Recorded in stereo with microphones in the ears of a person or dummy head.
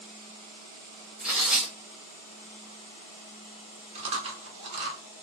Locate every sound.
1.2 s tearing paper: centre (ahead or behind), 1.2 m
4.0 s chewing: 35° right (ahead or behind), 0.7 m